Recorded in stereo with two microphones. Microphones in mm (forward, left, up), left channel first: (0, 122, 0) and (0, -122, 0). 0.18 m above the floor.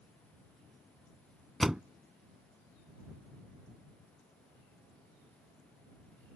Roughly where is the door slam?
Centre.